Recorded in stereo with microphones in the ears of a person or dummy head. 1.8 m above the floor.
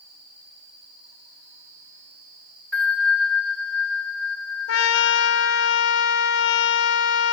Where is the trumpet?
60° left (ahead or behind), 0.7 m.